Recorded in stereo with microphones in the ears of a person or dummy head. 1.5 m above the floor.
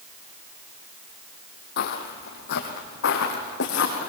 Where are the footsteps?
55° left (ahead or behind), 2.5 m; by 4.1 s 65° left (ahead or behind), 4.5 m.